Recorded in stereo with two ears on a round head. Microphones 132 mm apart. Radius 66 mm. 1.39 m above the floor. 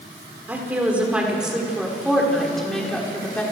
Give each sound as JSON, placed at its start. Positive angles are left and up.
{"t": 0.5, "sound": "a woman speaking", "side_deg": -10, "distance_m": 5.5}